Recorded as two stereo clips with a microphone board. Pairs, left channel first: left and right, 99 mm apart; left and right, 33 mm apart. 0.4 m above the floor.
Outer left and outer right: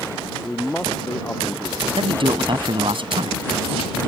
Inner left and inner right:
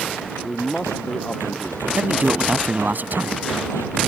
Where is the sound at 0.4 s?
10° left (ahead or behind); by 3.0 s 20° left (ahead or behind).